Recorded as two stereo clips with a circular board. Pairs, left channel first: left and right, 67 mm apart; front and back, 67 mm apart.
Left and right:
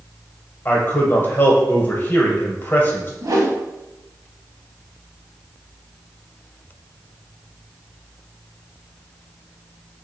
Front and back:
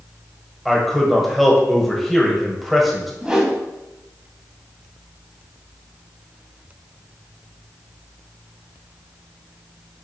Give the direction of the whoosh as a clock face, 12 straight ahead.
4 o'clock.